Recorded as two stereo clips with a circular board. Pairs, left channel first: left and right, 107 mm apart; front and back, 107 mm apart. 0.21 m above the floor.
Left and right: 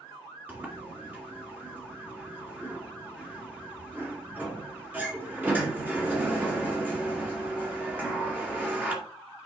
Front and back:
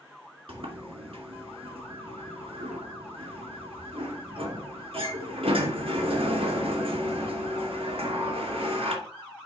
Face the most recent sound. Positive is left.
turn(degrees=-160)